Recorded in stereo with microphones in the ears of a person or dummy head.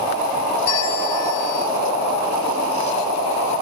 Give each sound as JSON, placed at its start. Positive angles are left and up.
{"t": 0.7, "sound": "a bell", "side_deg": 60, "distance_m": 3.5}